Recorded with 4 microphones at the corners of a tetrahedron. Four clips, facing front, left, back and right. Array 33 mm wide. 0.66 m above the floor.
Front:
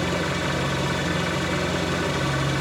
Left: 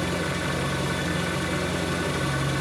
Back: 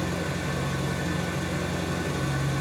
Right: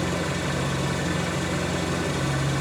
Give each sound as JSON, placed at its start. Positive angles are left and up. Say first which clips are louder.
{"t": 0.0, "sound": "an engine running", "louder": "even, front 5 dB", "azimuth_deg": 10, "distance_m": 0.8}